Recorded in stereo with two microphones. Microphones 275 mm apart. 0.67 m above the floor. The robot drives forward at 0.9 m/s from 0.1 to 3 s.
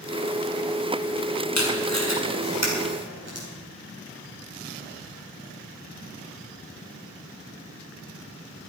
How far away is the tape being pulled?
About 3.5 m.